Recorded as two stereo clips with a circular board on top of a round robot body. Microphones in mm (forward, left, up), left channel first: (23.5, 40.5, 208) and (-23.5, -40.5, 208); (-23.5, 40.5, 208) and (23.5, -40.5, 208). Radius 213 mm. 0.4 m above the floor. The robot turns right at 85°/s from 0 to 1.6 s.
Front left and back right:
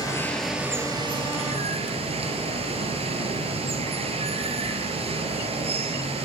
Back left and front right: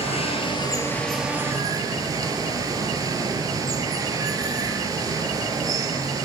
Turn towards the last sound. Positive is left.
turn(degrees=-110)